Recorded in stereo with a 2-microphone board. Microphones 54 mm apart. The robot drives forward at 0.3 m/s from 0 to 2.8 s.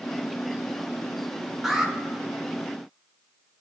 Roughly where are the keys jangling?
I don't hear keys jangling.